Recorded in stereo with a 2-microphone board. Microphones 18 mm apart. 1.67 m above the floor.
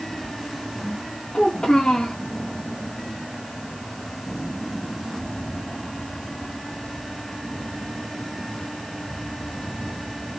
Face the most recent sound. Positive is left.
turn(degrees=75)  # may be behind; listen again after turning